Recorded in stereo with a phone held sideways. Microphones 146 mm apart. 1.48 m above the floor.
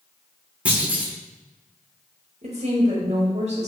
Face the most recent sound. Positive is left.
turn(degrees=-50)  # may be behind; listen again after turning